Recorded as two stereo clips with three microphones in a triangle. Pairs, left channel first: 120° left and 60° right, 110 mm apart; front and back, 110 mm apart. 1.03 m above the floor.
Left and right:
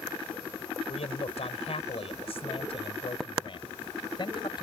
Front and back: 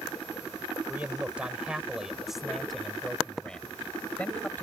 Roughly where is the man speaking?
Left.